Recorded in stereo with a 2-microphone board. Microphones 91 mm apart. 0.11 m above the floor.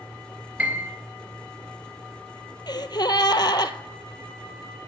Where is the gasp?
55° left (ahead or behind), 0.5 m.